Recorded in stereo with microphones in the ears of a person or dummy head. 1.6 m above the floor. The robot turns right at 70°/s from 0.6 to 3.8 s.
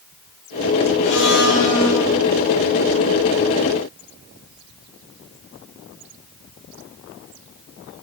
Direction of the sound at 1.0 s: 100° left.